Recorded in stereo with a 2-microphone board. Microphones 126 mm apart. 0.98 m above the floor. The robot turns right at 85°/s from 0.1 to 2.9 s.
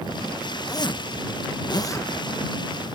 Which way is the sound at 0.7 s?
40° left.